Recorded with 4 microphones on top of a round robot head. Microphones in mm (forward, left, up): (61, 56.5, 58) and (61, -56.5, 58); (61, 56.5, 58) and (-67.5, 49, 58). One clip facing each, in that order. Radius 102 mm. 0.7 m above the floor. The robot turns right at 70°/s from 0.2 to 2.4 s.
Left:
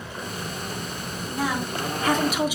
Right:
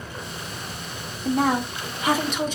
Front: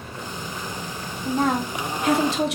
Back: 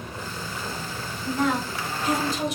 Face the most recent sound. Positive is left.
turn(degrees=10)